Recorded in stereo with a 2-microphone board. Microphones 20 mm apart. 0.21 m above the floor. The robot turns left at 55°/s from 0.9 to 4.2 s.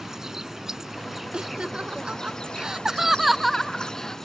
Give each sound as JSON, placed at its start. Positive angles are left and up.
{"t": 0.0, "sound": "an insect", "azimuth_deg": -150}
{"t": 1.3, "sound": "laughter", "side_deg": -50}